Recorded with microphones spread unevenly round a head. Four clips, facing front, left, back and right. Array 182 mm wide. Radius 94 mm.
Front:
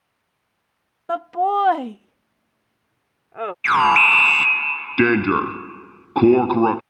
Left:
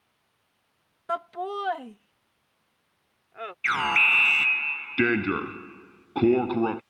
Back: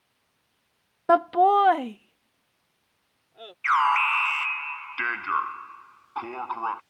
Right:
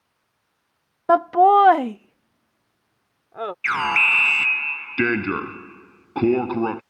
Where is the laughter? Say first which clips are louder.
Right 17 dB, back 2 dB; 115° right; by 3.5 s 40° right.